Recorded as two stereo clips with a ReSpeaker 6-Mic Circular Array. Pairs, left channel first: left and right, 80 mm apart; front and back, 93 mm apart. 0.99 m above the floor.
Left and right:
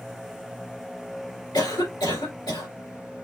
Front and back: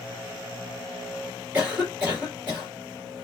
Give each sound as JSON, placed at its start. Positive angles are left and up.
{"t": 1.5, "sound": "a cough", "azimuth_deg": 105, "distance_m": 3.0}